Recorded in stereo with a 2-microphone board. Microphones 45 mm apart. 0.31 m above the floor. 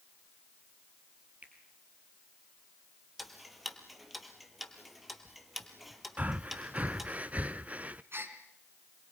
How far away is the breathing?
About 0.7 m.